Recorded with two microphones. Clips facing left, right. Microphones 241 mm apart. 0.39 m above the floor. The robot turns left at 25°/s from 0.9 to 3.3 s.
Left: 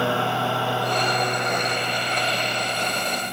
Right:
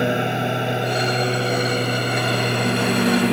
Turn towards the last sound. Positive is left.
turn(degrees=-80)